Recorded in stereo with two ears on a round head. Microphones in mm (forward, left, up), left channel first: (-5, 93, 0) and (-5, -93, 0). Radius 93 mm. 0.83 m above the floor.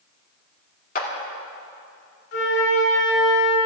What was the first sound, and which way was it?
A clap, 40° left (ahead or behind).